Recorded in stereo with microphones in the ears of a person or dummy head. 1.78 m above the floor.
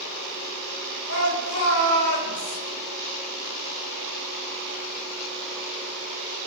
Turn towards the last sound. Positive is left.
turn(degrees=90)